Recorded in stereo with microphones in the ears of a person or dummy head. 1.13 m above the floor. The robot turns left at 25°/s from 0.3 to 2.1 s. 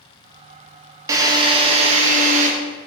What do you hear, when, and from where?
1.1 s a drill: 15° right (ahead or behind), 1.1 m; by 2.5 s 40° right (ahead or behind), 1.1 m